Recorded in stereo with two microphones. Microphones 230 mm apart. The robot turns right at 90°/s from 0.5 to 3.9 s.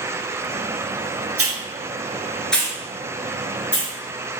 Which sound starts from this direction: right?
A hiss, at 1.4 s.